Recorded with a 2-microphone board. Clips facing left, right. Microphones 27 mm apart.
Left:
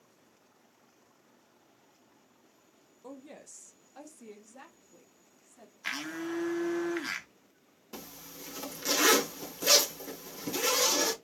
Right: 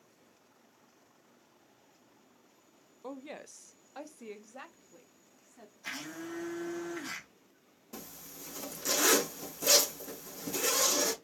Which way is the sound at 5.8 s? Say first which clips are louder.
Left 5 dB; 55° left (ahead or behind).